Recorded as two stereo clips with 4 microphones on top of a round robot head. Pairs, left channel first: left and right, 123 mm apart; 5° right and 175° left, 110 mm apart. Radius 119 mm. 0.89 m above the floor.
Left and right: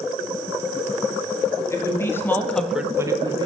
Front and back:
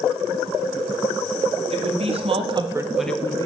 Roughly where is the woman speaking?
Behind left.